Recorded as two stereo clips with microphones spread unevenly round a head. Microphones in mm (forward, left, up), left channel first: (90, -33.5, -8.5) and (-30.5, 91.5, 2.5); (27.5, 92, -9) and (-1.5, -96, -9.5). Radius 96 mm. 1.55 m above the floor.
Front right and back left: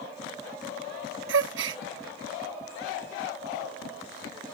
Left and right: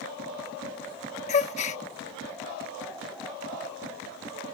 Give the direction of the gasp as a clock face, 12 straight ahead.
7 o'clock.